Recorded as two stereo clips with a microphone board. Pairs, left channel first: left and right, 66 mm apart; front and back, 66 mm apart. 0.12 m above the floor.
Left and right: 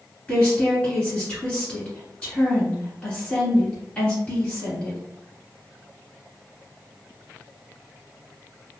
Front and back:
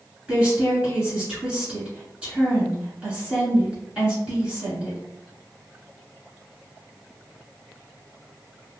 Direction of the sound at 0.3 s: 130° left.